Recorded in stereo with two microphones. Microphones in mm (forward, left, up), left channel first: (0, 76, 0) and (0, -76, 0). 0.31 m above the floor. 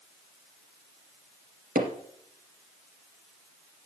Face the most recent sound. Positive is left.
turn(degrees=-75)  # may be behind; listen again after turning